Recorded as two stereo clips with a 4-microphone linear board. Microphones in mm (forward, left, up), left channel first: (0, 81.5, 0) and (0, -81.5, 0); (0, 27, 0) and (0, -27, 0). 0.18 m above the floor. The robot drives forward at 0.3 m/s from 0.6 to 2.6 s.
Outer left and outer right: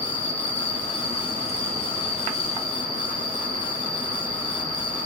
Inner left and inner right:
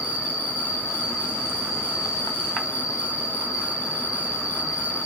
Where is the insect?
30° right (ahead or behind), 8 m.